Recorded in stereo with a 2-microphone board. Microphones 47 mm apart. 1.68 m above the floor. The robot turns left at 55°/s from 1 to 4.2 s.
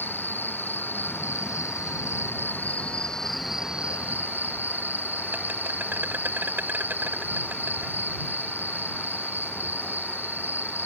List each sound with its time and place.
0.0 s an insect: 130° left; by 10.9 s 45° right